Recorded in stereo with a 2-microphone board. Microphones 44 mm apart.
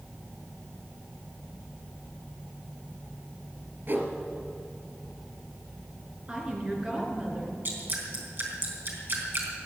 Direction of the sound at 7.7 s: 50° right (ahead or behind).